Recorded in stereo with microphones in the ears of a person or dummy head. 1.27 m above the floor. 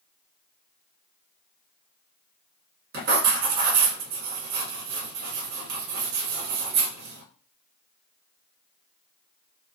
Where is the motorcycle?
No motorcycle in this recording.